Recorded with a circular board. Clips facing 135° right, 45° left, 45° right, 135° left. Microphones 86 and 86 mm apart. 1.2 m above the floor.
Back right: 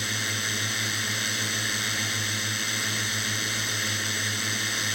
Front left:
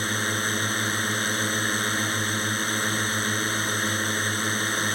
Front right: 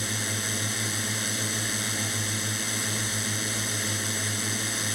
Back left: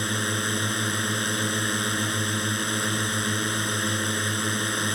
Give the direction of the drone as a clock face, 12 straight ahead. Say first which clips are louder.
Front left 5 dB, back left 6 dB; 9 o'clock.